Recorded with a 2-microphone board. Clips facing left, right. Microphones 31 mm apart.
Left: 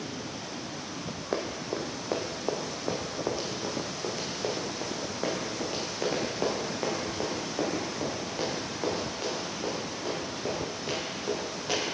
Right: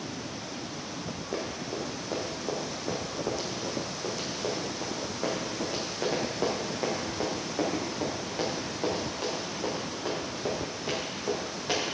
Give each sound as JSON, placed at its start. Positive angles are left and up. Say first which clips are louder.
{"t": 1.3, "sound": "running footsteps", "louder": "left 3 dB", "side_deg": 45, "distance_m": 2.0}